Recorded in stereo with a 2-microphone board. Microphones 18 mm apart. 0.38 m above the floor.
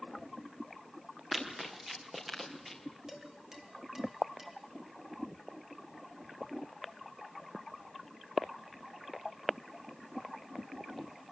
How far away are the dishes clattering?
About 4 m.